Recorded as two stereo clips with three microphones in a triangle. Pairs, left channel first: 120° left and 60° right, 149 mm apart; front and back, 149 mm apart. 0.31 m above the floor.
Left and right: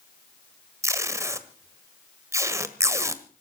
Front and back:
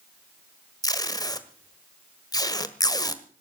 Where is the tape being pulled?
20° right, 1.4 m.